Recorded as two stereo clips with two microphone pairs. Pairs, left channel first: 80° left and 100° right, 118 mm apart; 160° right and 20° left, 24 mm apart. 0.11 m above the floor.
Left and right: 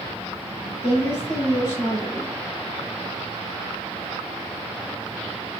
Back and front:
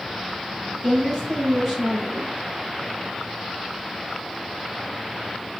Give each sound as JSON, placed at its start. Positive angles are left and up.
{"t": 0.8, "sound": "a woman speaking", "azimuth_deg": 120, "distance_m": 2.0}